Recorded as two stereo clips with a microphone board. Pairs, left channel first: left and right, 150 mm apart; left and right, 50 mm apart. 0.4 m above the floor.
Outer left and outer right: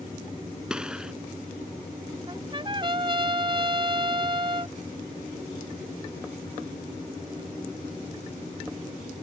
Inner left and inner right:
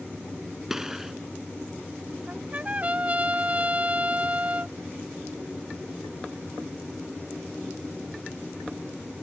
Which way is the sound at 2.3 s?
35° right (ahead or behind).